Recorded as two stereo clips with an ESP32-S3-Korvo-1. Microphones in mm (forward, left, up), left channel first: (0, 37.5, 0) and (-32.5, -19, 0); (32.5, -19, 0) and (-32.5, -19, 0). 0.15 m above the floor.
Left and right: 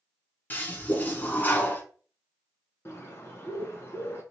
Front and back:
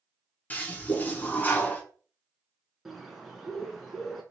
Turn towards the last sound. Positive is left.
turn(degrees=90)